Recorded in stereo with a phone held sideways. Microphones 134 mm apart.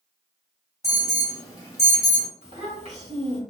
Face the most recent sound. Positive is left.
turn(degrees=-50)  # may be behind; listen again after turning